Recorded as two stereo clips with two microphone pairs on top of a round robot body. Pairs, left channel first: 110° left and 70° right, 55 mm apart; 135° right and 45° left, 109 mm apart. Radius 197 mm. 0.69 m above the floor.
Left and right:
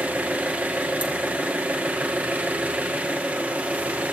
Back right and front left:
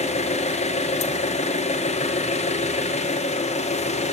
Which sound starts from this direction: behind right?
An engine running, at 0.0 s.